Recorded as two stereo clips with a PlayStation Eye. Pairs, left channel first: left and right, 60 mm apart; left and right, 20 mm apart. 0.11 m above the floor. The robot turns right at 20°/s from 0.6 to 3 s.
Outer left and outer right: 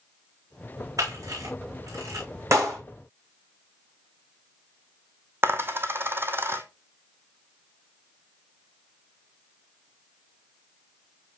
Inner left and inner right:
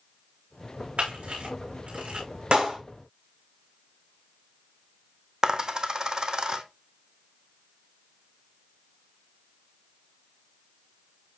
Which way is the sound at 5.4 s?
40° right (ahead or behind).